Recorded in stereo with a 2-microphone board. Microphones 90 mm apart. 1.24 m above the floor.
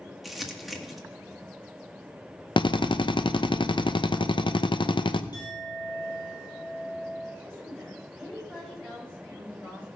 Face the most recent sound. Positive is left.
turn(degrees=10)  # may be behind; listen again after turning